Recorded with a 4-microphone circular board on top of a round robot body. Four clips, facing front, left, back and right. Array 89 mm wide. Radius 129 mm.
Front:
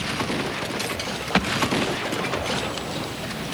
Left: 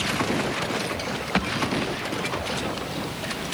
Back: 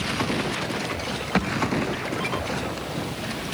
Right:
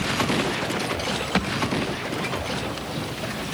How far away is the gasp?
No gasp in this recording.